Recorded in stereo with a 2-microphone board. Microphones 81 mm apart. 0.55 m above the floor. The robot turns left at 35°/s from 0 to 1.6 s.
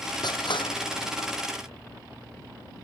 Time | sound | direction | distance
0.2 | crushing | 60° left (ahead or behind) | ?